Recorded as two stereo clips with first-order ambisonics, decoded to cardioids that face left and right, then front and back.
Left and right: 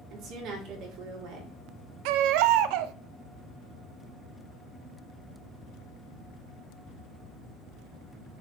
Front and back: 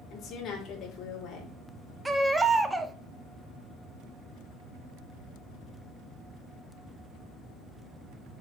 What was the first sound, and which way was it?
A woman speaking, 55° right.